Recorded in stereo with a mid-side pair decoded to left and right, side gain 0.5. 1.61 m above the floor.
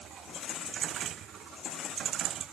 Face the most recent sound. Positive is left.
No sound to turn to.